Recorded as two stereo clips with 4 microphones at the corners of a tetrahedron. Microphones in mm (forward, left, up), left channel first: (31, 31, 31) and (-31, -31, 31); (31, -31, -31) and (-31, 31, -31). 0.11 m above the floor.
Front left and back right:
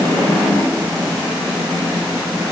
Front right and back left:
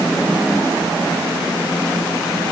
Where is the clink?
I don't hear a clink.